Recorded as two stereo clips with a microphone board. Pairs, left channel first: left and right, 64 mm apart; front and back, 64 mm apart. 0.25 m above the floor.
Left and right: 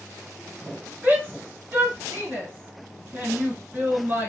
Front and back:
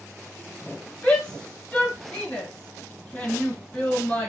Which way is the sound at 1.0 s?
65° right.